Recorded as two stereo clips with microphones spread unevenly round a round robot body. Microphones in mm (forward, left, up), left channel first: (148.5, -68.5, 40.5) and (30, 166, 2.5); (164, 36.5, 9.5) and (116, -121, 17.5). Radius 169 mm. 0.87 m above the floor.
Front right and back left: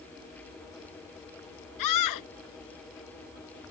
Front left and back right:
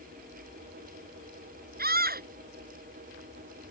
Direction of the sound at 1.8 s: 85° right.